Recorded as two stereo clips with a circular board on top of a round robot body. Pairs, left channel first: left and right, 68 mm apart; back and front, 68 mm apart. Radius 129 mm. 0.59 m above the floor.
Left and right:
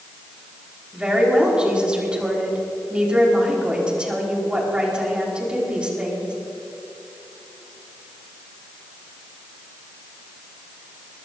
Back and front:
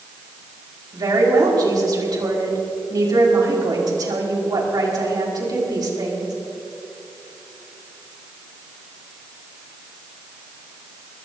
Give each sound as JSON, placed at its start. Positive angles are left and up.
{"t": 0.9, "sound": "a woman speaking", "azimuth_deg": -15, "distance_m": 4.5}